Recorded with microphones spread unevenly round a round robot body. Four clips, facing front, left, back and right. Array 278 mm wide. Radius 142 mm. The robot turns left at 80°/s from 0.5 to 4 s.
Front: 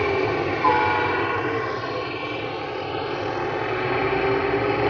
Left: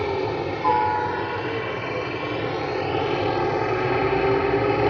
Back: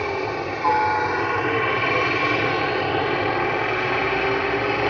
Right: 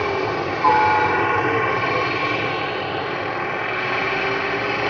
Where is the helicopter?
15° right; by 4.9 s 65° left.